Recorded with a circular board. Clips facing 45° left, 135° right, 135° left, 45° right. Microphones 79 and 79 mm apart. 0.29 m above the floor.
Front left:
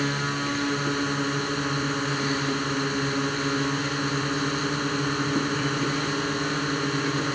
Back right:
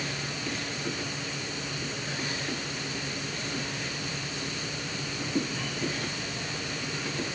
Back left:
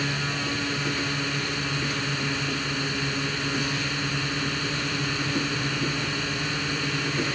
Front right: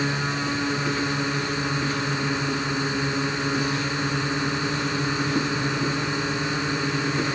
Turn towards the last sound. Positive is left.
turn(degrees=20)